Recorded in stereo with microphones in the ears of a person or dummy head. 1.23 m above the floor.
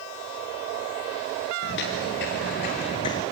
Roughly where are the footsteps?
Left.